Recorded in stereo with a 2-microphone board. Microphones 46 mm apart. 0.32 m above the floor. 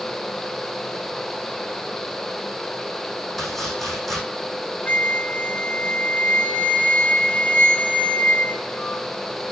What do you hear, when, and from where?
3.4 s chopping: centre (ahead or behind), 6.5 m
4.9 s a flute: 35° left (ahead or behind), 0.9 m